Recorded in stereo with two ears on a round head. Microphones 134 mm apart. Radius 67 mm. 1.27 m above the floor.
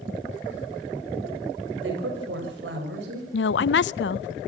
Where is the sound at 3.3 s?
80° left, 0.7 m.